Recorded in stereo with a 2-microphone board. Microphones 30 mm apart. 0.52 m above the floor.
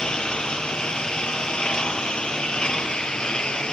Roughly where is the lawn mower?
Left.